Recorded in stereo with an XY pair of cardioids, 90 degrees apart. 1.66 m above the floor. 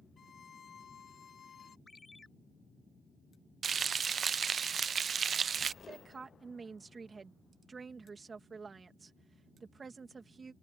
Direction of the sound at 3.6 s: 45° right.